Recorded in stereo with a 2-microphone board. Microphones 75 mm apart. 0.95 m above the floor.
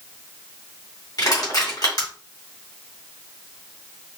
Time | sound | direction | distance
1.2 | crushing | 65° left (ahead or behind) | 3 m